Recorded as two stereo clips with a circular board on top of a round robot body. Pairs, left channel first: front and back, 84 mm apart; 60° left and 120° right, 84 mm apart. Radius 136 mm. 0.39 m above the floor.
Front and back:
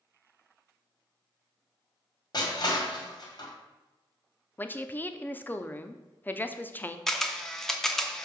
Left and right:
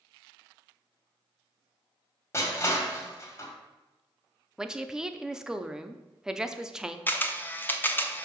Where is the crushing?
10° left, 2.5 m.